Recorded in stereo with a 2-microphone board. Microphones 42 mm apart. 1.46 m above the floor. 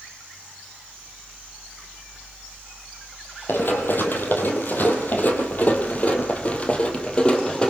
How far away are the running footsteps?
About 3.5 m.